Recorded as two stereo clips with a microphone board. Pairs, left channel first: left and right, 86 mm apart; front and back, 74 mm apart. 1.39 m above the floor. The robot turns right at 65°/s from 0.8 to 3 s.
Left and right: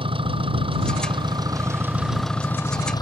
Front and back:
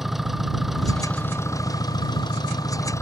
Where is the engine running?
90° right; by 3.0 s 50° left.